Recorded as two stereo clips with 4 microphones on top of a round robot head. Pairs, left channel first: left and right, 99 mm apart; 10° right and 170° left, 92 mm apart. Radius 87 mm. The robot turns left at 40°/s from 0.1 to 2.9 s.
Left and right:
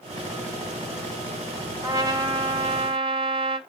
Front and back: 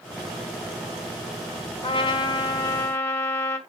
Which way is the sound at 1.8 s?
30° right.